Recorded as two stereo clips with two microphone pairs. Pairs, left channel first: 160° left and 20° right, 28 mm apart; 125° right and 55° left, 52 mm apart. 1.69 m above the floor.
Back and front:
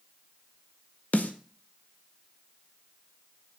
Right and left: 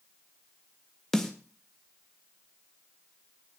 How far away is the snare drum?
About 1.8 m.